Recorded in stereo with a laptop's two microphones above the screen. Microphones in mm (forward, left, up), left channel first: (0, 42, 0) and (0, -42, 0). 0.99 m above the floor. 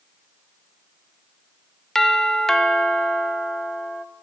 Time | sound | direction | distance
1.9 | a doorbell | 5° left (ahead or behind) | 0.6 m